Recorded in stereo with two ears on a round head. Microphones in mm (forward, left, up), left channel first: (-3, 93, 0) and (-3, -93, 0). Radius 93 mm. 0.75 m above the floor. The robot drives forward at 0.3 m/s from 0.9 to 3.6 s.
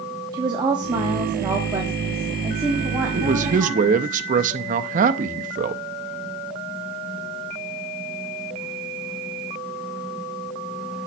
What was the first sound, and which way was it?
A woman speaking, 20° right (ahead or behind).